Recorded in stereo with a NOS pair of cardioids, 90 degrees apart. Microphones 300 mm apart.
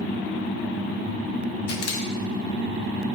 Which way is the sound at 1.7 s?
55° left.